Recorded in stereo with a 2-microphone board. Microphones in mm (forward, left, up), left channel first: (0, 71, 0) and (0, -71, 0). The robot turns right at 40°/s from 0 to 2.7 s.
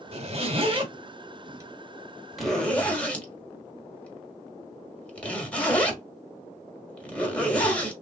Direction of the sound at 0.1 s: 45° right (ahead or behind).